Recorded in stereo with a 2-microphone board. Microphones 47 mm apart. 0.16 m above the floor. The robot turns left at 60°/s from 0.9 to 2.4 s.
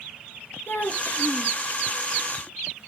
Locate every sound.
0.7 s a child speaking: 90° left, 1.9 m; by 1.6 s 50° left, 1.9 m